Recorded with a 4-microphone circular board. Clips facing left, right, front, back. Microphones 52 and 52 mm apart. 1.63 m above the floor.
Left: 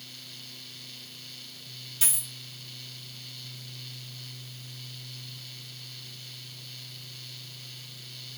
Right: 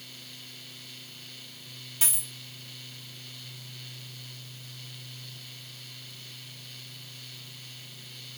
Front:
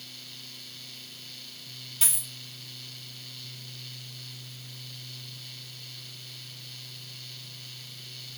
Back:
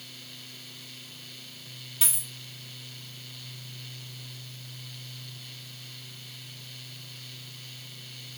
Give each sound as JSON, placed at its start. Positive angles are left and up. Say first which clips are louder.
{"t": 2.0, "sound": "a dropped coin", "louder": "right 1 dB, even", "azimuth_deg": -105, "distance_m": 1.1}